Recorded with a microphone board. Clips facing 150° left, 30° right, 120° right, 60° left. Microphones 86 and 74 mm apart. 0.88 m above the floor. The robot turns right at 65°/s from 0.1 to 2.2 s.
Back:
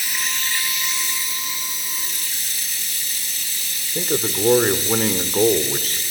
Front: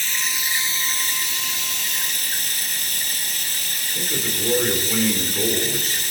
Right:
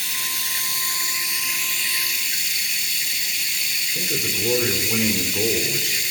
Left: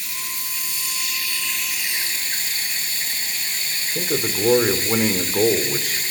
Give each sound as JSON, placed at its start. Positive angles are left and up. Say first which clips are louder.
{"t": 0.0, "sound": "running water", "louder": "even, right 3 dB", "azimuth_deg": -130, "distance_m": 3.0}
{"t": 4.0, "sound": "a man speaking", "louder": "back 6 dB, left 6 dB", "azimuth_deg": 105, "distance_m": 2.0}